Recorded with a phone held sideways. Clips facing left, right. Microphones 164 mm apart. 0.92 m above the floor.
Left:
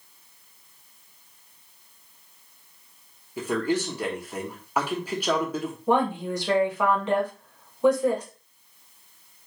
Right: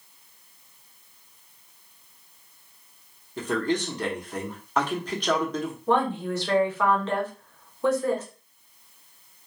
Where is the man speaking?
10° left (ahead or behind), 0.6 m.